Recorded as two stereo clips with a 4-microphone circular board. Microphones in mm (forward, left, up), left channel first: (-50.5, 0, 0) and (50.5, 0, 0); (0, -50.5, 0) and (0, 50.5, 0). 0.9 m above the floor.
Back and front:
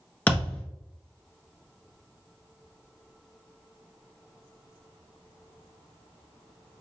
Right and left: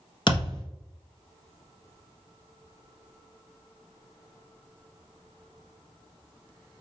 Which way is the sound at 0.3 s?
110° right.